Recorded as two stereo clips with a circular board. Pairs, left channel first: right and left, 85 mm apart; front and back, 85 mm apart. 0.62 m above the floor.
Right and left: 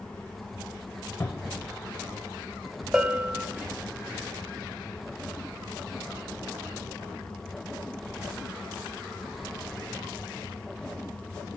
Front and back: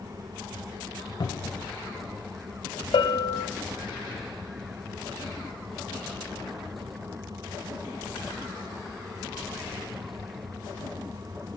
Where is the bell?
10° left, 0.6 m.